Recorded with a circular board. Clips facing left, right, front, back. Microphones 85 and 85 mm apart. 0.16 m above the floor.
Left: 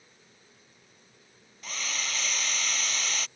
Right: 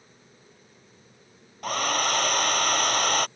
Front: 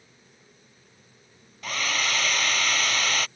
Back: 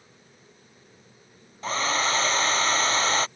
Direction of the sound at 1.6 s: 120° right.